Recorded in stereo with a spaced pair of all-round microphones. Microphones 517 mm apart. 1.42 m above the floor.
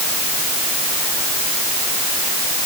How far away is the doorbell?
No doorbell in this recording.